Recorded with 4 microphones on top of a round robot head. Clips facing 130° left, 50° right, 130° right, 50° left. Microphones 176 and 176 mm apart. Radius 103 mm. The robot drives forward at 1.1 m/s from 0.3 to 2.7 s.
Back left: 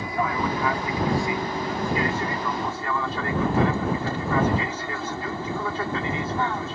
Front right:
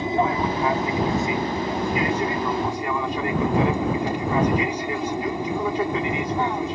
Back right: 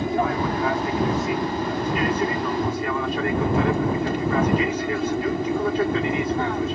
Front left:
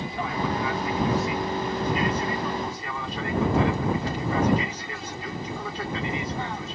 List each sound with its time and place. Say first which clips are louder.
0.0 s an aircraft: front right 4 dB, back right 7 dB; 110° right; by 6.8 s 120° right